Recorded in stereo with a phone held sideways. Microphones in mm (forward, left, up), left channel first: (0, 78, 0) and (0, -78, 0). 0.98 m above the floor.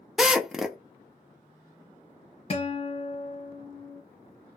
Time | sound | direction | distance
0.2 | a drill | 5° right (ahead or behind) | 0.6 m
2.5 | a guitar | 40° left (ahead or behind) | 1.0 m